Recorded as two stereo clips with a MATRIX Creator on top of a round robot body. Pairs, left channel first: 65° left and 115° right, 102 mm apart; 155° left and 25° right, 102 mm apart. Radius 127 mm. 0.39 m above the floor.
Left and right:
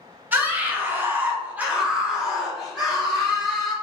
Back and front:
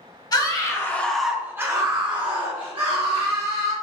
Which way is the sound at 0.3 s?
Straight behind.